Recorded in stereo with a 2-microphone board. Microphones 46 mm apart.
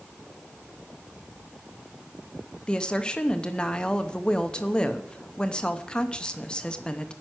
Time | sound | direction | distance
2.7 | a woman speaking | 20° left (ahead or behind) | 0.9 m